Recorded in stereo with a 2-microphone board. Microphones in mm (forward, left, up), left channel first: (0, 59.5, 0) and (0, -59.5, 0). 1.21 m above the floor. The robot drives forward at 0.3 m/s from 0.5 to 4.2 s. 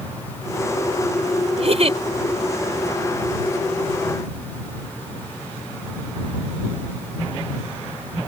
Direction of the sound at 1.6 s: 60° right (ahead or behind).